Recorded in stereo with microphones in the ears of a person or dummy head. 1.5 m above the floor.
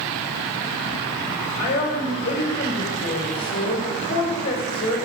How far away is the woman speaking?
About 1.7 m.